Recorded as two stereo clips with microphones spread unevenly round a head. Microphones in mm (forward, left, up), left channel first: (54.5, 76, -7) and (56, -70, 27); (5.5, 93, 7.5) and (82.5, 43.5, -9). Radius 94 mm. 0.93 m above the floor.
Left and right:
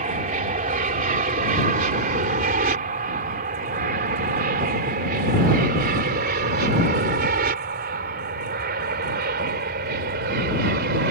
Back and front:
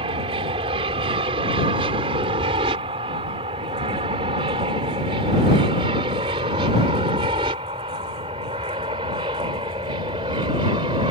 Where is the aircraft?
65° right; by 11.1 s 90° right.